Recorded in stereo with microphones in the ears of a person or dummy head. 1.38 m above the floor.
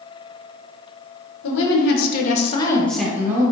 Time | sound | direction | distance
1.4 | a woman speaking | 70° left (ahead or behind) | 1.0 m